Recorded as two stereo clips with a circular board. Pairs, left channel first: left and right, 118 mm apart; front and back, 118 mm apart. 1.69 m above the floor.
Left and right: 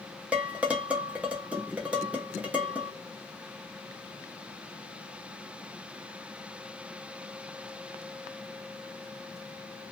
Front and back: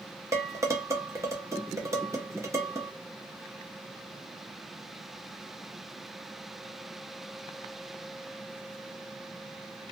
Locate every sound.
0.3 s dishes clattering: 155° right, 0.7 m